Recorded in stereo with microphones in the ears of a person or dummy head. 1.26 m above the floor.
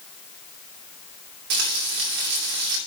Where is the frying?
60° right (ahead or behind), 2.5 m.